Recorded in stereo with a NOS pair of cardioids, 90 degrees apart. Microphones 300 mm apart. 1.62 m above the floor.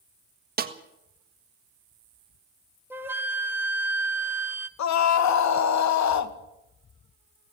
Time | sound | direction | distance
0.6 | a snare drum | 30° right | 1.6 m
2.9 | a flute | 5° right | 1.4 m
4.8 | a scream | 60° left | 1.9 m